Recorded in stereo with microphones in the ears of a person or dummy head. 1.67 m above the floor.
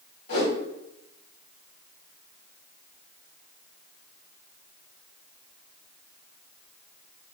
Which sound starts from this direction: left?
A whoosh, at 0.3 s.